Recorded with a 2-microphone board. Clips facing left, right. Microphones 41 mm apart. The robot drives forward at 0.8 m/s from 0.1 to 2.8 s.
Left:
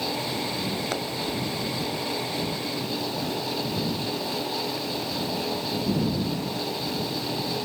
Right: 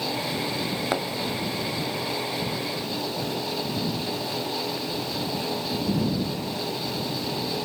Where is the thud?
20° right (ahead or behind); by 1.1 s 15° right (ahead or behind).